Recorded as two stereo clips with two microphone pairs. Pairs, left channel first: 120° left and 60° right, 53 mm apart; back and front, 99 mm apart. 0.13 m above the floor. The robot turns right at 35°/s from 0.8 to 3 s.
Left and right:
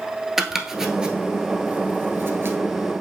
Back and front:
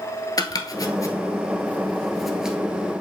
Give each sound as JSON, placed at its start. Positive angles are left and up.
{"t": 0.4, "sound": "chopping", "azimuth_deg": -140, "distance_m": 0.8}